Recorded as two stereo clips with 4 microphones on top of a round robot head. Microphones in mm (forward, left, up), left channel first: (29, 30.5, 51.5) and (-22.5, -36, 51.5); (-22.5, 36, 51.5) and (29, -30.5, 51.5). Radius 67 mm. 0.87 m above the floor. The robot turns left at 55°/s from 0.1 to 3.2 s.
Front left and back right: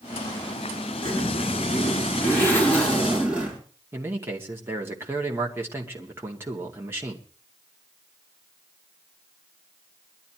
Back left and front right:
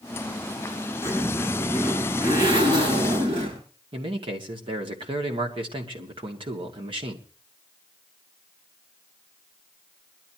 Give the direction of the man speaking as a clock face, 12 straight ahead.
2 o'clock.